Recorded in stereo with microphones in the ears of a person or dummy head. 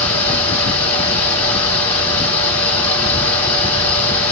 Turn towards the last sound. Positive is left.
turn(degrees=10)  # may be behind; listen again after turning